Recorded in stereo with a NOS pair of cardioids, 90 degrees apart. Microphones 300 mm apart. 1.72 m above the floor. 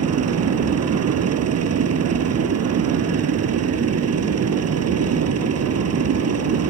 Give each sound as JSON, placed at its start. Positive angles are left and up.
{"t": 0.0, "sound": "a machine running", "azimuth_deg": -55}